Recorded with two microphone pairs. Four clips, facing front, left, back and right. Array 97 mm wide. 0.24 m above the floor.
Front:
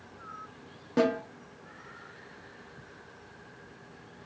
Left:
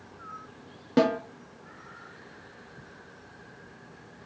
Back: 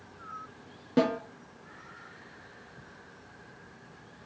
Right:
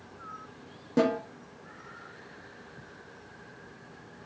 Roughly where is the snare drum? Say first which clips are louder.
Left 2 dB, even; left.